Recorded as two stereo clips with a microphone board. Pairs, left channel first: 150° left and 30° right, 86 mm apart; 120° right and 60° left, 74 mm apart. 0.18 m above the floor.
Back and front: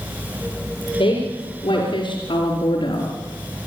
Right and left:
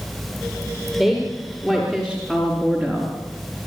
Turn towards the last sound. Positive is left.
turn(degrees=155)